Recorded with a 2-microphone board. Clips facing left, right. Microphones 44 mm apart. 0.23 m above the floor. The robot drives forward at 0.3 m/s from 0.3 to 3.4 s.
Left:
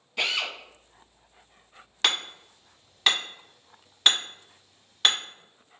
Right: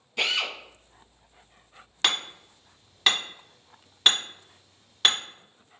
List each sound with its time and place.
0.2 s a drill: centre (ahead or behind), 1.1 m
2.0 s hammering: 5° left (ahead or behind), 1.2 m